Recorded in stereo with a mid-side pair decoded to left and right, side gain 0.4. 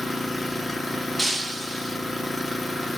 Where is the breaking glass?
5° right, 0.9 m.